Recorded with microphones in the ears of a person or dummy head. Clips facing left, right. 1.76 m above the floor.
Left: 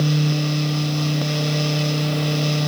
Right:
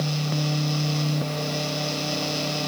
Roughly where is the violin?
No violin in this recording.